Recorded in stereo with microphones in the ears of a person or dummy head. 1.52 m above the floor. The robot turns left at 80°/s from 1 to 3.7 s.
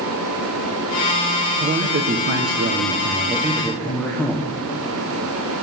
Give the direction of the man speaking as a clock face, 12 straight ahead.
1 o'clock.